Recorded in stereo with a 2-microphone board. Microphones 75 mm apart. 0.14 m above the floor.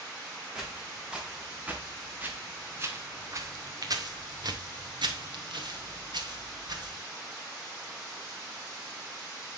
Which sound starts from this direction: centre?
Footsteps, at 0.6 s.